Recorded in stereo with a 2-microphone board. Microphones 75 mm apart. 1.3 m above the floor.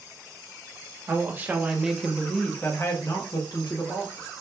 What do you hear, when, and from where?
1.1 s a woman speaking: 30° right (ahead or behind), 1.0 m; by 4.3 s 65° left (ahead or behind), 1.2 m